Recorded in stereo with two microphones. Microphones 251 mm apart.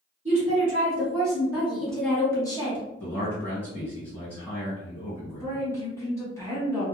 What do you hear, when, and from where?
0.2 s a woman speaking: 30° right (ahead or behind), 1.4 m; by 2.9 s 20° left (ahead or behind), 1.2 m
3.0 s a man speaking: 5° left (ahead or behind), 2.0 m
5.4 s a woman speaking: 10° left (ahead or behind), 1.3 m